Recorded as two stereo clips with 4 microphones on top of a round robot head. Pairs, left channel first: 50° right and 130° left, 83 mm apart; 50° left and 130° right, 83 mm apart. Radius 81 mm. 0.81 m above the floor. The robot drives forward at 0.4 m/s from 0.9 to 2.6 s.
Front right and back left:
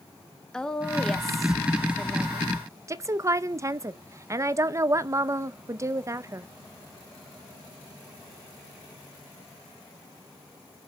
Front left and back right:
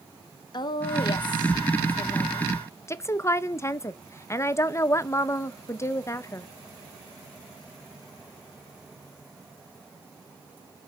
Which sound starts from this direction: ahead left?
A woman speaking, at 0.5 s.